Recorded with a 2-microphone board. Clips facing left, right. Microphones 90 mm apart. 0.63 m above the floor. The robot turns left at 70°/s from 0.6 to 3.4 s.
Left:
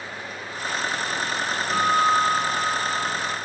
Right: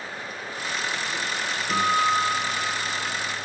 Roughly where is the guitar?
Behind right.